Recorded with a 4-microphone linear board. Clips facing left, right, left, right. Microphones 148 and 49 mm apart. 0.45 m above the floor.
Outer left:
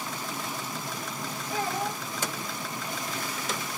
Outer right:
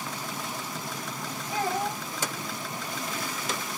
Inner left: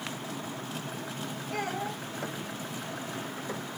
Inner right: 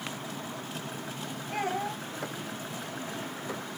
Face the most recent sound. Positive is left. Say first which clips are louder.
# outer right 2 dB, inner right 2 dB
turn(degrees=-20)  # may be behind; listen again after turning